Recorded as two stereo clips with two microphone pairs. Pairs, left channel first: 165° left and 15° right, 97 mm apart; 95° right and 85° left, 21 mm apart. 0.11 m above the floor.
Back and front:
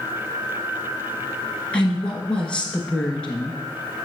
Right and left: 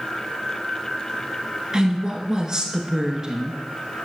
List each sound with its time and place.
1.7 s a woman speaking: 100° left, 1.3 m